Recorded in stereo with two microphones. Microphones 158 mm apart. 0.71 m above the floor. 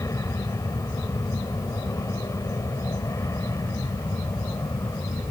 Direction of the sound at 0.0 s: 20° left (ahead or behind).